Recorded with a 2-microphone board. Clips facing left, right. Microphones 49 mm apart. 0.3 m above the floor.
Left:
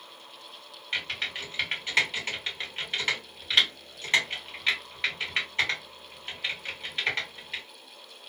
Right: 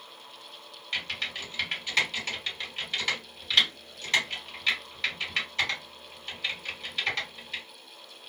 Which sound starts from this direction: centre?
Typing on a keyboard, at 0.9 s.